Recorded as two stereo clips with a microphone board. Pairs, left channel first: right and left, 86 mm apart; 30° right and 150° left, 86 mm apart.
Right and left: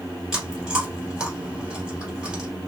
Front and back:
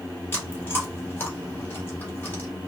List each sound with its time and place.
0.3 s chewing: 15° left, 1.8 m